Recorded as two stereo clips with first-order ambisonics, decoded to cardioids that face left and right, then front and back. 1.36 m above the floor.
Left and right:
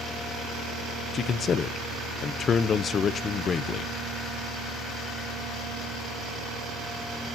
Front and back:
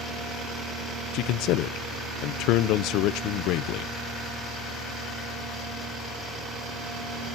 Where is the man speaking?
25° left, 0.6 m.